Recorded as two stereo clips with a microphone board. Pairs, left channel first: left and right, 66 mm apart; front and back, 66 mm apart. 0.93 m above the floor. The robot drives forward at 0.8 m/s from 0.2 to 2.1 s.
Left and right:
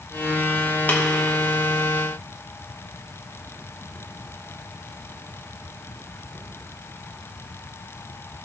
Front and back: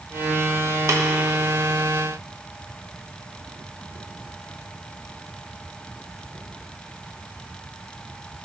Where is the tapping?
145° left, 1.4 m; by 1.0 s 150° left, 1.4 m.